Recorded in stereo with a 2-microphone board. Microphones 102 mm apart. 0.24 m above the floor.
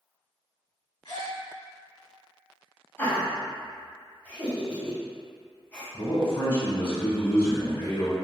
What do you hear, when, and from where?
1.1 s a gasp: 45° left (ahead or behind), 0.9 m
3.0 s laughter: 15° left (ahead or behind), 1.3 m
5.9 s a man speaking: 20° left (ahead or behind), 1.4 m